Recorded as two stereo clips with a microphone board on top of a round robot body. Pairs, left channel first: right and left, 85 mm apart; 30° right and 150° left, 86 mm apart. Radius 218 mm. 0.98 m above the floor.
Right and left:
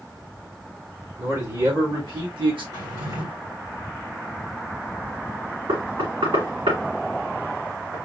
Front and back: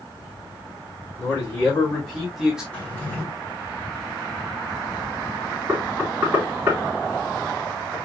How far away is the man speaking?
About 3 m.